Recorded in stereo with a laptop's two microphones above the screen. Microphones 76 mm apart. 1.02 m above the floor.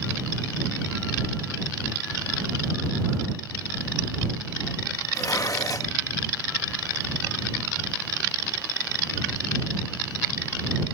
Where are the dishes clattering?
50° left (ahead or behind).